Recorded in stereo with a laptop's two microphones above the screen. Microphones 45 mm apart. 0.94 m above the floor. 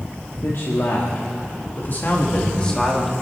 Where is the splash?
I don't hear a splash.